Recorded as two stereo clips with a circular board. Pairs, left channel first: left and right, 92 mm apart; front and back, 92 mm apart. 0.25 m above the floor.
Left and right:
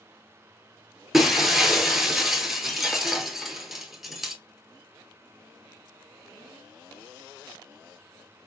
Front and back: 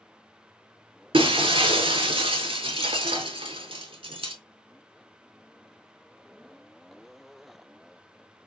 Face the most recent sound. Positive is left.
turn(degrees=-175)